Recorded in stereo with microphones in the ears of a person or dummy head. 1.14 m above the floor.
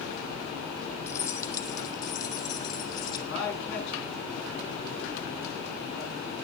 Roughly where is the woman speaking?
Left.